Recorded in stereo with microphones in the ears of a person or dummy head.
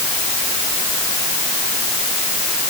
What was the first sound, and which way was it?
Only background noise.